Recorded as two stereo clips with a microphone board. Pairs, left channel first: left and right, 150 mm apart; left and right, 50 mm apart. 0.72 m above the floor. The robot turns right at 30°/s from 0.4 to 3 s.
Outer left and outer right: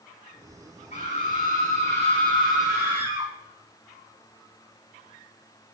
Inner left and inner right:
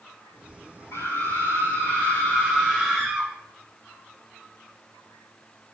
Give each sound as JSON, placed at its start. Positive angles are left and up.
{"t": 0.9, "sound": "a scream", "azimuth_deg": 105, "distance_m": 5.5}